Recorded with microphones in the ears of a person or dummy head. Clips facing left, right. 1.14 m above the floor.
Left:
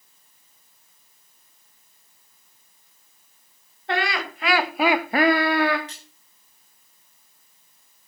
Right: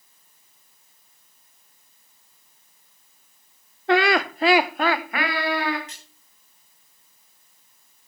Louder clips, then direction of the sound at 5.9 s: Left 2 dB; 30° left (ahead or behind).